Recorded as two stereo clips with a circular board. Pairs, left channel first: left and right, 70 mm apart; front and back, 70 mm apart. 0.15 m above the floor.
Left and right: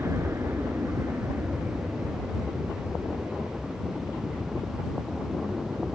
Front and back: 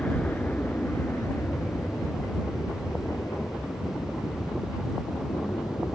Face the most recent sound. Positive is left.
turn(degrees=-15)